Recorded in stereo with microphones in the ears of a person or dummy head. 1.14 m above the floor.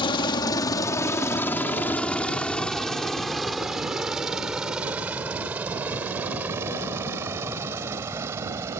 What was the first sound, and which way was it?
A helicopter, 25° left (ahead or behind).